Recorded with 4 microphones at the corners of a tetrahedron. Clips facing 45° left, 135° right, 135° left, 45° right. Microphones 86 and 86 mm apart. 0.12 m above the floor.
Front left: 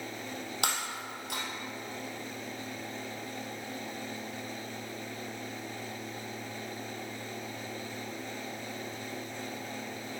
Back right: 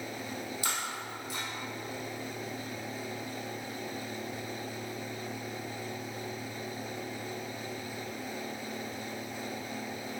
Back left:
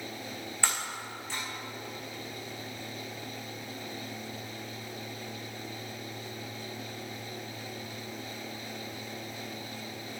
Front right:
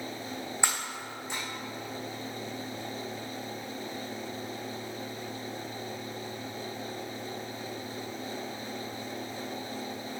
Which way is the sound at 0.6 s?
25° left.